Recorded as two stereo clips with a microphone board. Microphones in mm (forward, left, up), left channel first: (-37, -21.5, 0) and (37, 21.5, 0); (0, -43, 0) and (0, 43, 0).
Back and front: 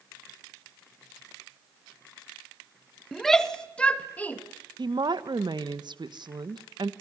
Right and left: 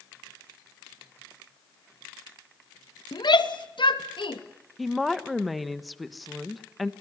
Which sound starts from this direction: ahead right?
A shout, at 3.1 s.